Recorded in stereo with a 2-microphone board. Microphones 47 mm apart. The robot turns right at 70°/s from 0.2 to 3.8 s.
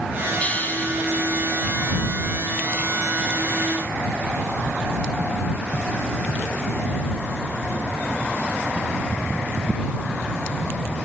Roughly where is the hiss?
Ahead left.